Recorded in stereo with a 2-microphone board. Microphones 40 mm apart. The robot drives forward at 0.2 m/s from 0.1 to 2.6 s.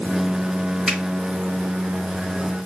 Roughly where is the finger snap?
Centre.